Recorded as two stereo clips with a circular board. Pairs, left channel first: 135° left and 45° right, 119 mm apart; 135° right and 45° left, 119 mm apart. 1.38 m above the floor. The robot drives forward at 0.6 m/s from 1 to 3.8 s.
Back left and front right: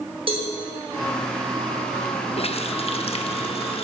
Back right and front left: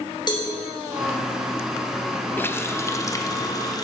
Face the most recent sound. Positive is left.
turn(degrees=170)